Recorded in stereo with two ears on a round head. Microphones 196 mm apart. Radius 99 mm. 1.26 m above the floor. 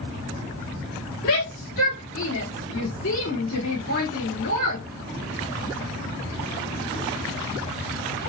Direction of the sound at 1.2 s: 75° left (ahead or behind).